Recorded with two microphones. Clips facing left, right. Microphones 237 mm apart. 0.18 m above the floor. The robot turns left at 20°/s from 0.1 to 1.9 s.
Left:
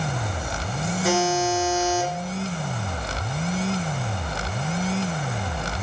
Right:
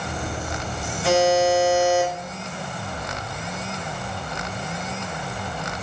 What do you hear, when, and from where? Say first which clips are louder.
1.0 s a buzzer: right 5 dB; 45° left (ahead or behind), 2 m; by 2.1 s 60° left (ahead or behind), 2 m